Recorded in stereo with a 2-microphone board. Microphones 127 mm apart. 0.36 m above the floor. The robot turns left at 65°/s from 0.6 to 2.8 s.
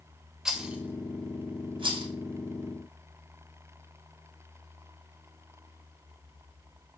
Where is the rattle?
5° right (ahead or behind), 0.6 m; by 2.1 s 40° right (ahead or behind), 0.6 m.